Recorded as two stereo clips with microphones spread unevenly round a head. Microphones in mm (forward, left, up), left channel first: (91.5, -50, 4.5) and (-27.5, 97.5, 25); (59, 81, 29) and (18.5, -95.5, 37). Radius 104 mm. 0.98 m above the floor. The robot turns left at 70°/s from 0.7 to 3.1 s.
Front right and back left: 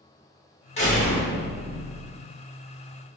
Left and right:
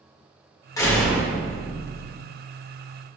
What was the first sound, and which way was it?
A door slam, 5° left.